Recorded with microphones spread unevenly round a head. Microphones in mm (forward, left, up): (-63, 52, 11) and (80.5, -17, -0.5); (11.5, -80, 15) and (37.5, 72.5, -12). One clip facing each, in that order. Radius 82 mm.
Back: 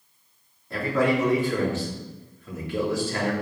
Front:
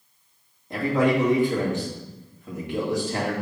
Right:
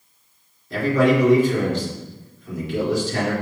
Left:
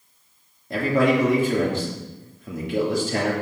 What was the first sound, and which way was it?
A man speaking, 45° left.